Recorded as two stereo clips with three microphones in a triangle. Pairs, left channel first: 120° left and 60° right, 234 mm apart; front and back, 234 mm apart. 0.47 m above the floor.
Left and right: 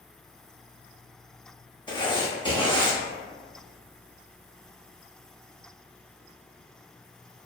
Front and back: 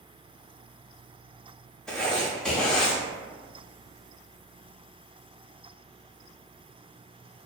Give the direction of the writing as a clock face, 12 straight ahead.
9 o'clock.